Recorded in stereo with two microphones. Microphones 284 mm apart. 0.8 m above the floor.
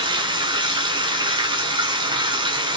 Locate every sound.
0.0 s running water: 15° right (ahead or behind), 0.7 m